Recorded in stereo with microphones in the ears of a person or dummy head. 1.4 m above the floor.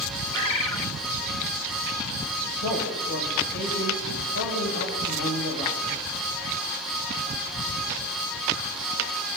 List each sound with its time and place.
0.3 s a bird: 25° left (ahead or behind), 1.9 m
2.6 s a man speaking: 55° left (ahead or behind), 7 m